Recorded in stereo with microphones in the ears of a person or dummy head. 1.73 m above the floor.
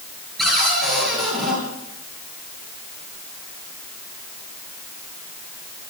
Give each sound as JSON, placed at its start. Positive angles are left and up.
{"t": 0.4, "sound": "a cupboard door", "side_deg": 0, "distance_m": 9.0}